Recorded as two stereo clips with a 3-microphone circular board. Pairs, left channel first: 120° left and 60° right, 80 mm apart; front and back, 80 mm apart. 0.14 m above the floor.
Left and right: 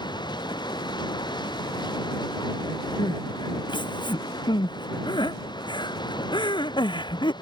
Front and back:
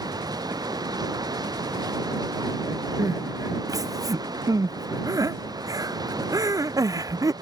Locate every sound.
0.0 s running water: 145° left
3.0 s crying: 135° left